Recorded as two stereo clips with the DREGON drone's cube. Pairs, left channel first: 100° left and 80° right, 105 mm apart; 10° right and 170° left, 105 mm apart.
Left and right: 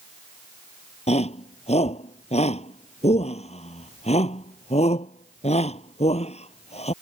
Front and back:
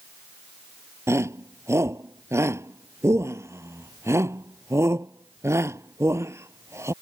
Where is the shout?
105° left.